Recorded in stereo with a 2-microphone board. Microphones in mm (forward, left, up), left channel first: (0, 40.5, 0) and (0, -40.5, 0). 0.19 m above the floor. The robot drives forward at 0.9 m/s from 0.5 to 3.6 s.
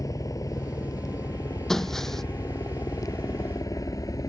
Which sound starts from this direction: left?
A helicopter, at 0.0 s.